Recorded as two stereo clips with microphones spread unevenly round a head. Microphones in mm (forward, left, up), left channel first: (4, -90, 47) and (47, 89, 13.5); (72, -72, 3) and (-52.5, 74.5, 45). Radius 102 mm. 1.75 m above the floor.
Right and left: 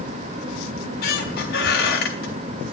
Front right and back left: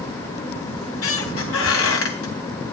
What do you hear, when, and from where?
0.8 s a squeak: 75° right, 3.5 m